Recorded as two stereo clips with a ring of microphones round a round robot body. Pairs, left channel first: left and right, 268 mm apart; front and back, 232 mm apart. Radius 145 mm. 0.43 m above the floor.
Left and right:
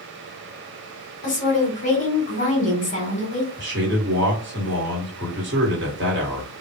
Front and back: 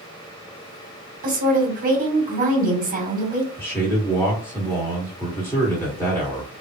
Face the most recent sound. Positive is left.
turn(degrees=-75)